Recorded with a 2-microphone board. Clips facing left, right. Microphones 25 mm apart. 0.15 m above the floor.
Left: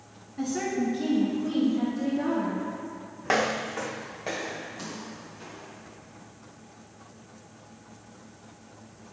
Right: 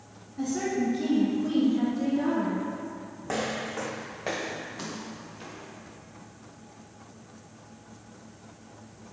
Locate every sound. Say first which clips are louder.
0.4 s a woman speaking: even; 25° left (ahead or behind), 1.6 m; by 2.6 s 30° right (ahead or behind), 2.5 m
3.2 s footsteps: left 5 dB; 80° left, 0.6 m; by 5.9 s 30° right (ahead or behind), 3 m